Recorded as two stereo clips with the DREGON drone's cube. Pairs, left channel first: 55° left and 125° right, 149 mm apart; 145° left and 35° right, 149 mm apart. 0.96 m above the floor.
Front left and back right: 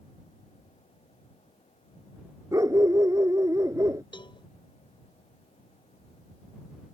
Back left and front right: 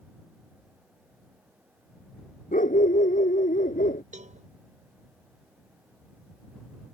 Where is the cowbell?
Straight ahead.